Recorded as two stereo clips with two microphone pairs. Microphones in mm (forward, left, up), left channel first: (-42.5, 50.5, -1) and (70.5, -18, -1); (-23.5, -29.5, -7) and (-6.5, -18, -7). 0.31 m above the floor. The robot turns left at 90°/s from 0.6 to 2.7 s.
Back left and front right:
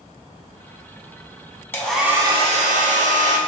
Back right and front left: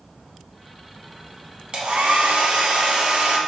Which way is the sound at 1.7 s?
75° left.